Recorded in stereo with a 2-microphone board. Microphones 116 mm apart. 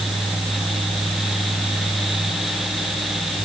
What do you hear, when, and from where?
Only background noise.